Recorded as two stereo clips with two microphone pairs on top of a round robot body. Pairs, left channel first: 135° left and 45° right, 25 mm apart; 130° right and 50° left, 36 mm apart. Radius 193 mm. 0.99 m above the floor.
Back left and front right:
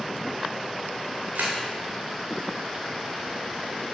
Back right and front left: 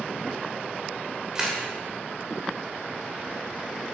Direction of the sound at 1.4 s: 25° right.